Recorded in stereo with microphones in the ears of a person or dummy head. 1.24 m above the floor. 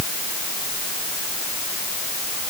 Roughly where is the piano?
I don't hear a piano.